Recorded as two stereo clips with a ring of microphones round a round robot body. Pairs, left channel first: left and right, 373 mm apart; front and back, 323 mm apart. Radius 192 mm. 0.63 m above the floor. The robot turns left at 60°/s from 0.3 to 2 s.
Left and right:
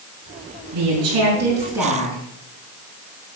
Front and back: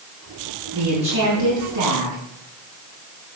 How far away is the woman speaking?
About 7.5 m.